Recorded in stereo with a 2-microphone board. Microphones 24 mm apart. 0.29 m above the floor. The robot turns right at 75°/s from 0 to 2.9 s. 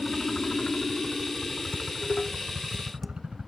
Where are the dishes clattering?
85° left; by 3.2 s 5° left (ahead or behind).